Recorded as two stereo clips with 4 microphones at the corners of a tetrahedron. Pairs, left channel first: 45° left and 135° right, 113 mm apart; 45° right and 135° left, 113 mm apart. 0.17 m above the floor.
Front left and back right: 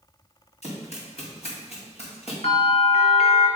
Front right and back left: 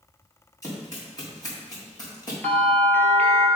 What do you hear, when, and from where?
0.6 s running footsteps: 15° left, 5 m; by 2.3 s 10° left, 4.5 m
2.4 s a bell: 30° left, 2 m